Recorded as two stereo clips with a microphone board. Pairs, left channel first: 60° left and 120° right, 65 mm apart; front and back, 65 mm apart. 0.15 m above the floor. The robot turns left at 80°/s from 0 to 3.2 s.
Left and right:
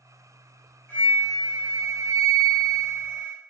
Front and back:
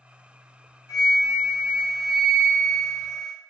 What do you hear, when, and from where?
0.9 s a flute: straight ahead, 1.5 m; by 3.3 s straight behind, 1.5 m